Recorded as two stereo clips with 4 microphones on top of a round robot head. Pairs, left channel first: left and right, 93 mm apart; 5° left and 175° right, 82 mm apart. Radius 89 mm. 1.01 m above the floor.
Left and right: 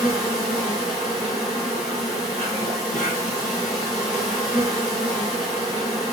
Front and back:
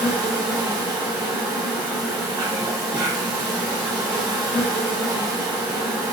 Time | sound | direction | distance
0.0 | an insect | 155° left | 1.7 m